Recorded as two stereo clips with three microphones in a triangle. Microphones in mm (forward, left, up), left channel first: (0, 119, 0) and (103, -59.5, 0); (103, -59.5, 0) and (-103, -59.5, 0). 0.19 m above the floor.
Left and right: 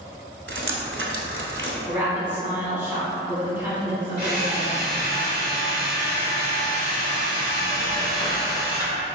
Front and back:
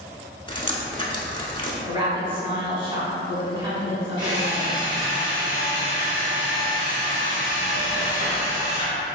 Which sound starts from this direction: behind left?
A drill, at 4.2 s.